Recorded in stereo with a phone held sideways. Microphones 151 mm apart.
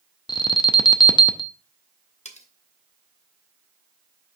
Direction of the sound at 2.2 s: 50° left (ahead or behind).